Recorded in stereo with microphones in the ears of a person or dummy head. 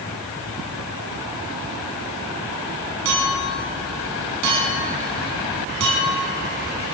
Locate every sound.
3.0 s a clink: 85° right, 9 m